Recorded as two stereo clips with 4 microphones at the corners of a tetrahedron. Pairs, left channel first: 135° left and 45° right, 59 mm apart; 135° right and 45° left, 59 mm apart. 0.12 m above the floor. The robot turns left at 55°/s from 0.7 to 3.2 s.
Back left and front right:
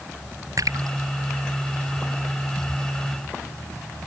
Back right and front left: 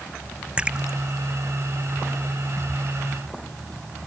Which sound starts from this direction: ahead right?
A splash, at 0.6 s.